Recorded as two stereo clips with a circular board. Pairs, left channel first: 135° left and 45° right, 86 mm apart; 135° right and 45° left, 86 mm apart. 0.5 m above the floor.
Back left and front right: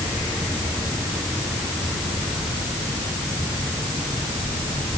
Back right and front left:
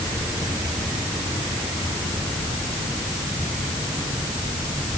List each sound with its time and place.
Only background noise.